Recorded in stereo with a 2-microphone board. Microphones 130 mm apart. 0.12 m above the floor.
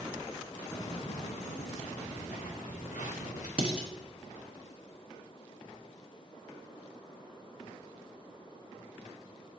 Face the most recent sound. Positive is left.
turn(degrees=-10)  # may be behind; listen again after turning